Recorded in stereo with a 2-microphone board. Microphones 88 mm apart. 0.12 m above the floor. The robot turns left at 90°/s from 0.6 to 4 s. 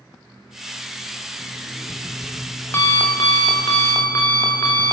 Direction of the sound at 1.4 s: 80° right.